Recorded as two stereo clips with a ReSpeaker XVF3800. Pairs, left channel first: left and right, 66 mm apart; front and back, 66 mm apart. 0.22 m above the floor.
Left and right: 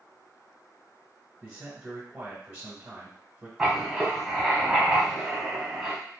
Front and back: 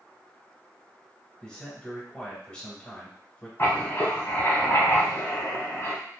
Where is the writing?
10° right, 1.1 m.